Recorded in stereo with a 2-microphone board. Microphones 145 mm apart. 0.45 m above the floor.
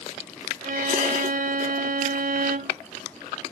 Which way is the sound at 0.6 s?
70° right (ahead or behind).